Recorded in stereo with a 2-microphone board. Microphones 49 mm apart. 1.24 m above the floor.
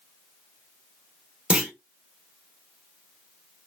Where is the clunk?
20° right (ahead or behind), 0.7 m.